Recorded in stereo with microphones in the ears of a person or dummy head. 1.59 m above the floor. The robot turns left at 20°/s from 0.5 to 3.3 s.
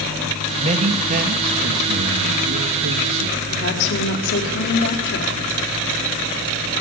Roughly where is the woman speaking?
Left.